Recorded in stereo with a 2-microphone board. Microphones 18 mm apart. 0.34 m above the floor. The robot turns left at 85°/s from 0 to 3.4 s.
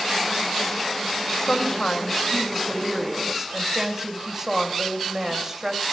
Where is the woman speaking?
130° left, 1.8 m; by 5.8 s 40° right, 1.8 m.